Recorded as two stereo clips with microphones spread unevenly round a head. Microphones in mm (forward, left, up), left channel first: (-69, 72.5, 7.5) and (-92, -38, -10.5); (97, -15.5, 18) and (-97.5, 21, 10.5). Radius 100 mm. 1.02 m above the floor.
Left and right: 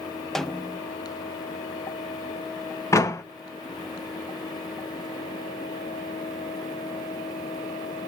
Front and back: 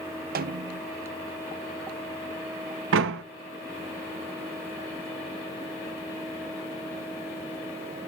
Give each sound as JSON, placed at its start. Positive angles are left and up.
{"t": 0.3, "sound": "a snare drum", "azimuth_deg": 170, "distance_m": 0.6}
{"t": 2.9, "sound": "a door slam", "azimuth_deg": 145, "distance_m": 1.0}